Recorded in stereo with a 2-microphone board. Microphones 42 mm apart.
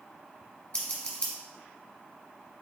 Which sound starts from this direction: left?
Scissors, at 0.7 s.